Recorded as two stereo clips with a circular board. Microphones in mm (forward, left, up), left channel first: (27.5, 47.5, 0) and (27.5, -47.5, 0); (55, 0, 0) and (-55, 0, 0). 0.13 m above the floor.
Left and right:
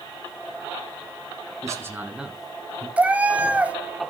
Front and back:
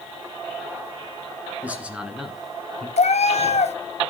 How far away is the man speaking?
About 1.9 m.